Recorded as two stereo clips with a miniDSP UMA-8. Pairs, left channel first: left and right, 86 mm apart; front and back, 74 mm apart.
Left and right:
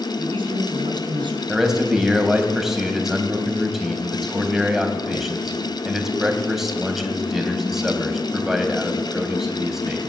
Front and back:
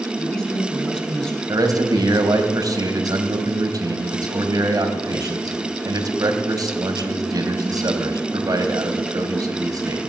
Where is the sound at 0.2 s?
80° right, 3.5 m.